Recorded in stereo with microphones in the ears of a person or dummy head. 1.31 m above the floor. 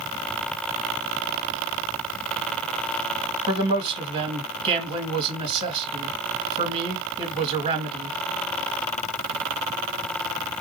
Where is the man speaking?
30° right (ahead or behind), 1.7 m.